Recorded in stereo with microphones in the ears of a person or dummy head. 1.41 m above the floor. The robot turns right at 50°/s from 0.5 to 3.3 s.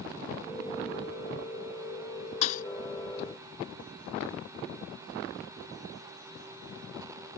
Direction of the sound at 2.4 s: 40° left (ahead or behind).